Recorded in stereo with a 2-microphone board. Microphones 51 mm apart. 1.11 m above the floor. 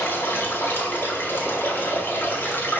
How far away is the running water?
About 1.7 m.